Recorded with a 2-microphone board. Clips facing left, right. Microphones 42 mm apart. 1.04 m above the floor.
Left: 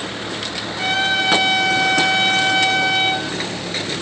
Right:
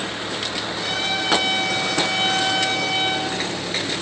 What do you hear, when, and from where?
0.8 s a trumpet: 45° left (ahead or behind), 8.5 m